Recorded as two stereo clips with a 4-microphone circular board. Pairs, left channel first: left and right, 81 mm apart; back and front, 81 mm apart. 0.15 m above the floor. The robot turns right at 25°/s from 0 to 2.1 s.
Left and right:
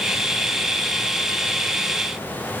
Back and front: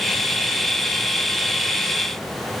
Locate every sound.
Only background noise.